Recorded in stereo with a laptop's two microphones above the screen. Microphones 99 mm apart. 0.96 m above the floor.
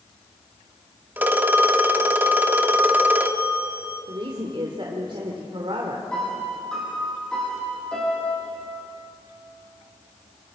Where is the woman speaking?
55° right (ahead or behind), 2.5 m.